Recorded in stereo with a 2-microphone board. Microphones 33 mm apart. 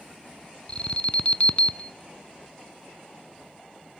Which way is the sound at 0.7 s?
35° left (ahead or behind).